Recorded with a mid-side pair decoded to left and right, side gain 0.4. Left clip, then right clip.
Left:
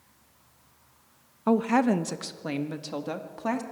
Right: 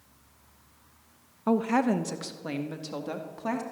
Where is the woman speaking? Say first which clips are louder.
Left 2 dB; 20° left, 0.8 m; by 3.6 s 25° left, 2 m.